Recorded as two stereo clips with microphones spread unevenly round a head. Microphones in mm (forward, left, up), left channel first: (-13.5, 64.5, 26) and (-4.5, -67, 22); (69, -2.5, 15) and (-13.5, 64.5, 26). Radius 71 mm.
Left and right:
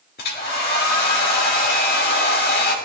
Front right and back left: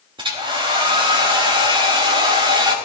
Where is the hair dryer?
105° left, 3 m.